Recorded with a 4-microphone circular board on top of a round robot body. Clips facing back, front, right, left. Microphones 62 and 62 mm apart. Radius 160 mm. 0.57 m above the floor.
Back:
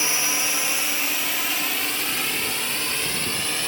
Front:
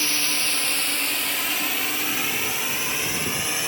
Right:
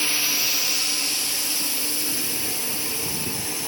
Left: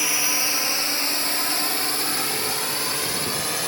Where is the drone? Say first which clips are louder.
Back 1 dB, left 2 dB; 145° left; by 3.7 s 80° left.